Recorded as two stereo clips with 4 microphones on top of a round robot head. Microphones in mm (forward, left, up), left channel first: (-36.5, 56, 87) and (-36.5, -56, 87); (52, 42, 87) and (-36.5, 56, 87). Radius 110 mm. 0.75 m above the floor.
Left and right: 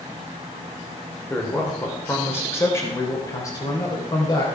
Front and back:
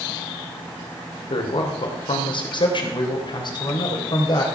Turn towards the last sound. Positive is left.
turn(degrees=30)